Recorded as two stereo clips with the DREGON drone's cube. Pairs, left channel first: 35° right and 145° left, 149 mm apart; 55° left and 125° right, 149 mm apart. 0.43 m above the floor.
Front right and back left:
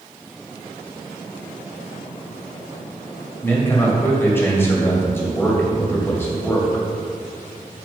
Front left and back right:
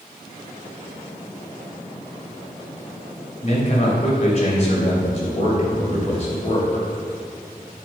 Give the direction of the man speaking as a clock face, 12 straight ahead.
11 o'clock.